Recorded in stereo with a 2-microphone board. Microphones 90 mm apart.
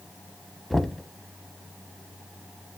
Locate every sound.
0.7 s knocking: centre (ahead or behind), 0.9 m